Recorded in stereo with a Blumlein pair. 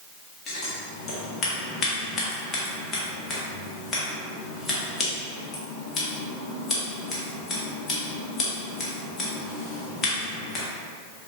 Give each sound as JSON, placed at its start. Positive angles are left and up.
{"t": 0.5, "sound": "scissors", "azimuth_deg": 25, "distance_m": 1.3}